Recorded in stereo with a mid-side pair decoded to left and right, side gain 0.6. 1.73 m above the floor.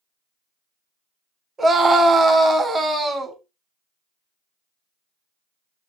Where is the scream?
25° right, 0.8 m.